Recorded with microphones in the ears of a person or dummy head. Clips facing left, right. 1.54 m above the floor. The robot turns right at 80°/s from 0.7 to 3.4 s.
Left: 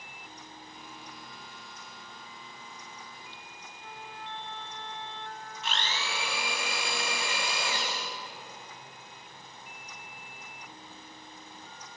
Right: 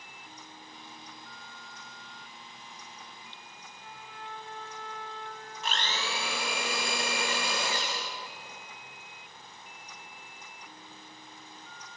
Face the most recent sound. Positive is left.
turn(degrees=-35)  # may be behind; listen again after turning